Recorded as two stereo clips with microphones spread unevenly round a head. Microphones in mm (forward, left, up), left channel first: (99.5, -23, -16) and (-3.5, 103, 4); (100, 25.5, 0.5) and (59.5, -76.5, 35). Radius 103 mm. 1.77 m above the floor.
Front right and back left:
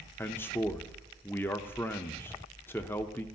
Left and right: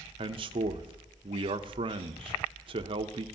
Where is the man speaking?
135° right, 0.6 m.